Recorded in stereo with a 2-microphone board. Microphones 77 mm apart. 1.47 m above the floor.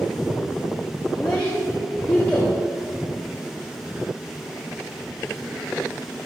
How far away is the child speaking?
About 2.5 m.